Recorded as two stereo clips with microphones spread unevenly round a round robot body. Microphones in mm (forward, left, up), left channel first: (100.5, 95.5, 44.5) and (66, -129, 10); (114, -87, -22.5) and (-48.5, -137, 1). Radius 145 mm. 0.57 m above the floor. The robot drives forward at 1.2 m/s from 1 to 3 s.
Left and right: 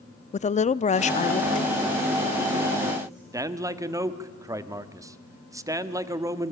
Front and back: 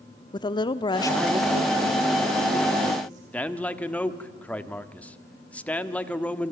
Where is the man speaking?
45° right, 1.5 m.